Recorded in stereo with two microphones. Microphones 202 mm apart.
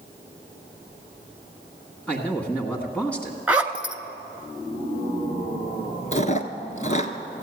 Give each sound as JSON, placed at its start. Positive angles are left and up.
{"t": 2.1, "sound": "a man speaking", "side_deg": 5, "distance_m": 1.6}
{"t": 3.5, "sound": "a zipper", "side_deg": -5, "distance_m": 0.8}
{"t": 6.1, "sound": "chewing", "side_deg": 35, "distance_m": 1.0}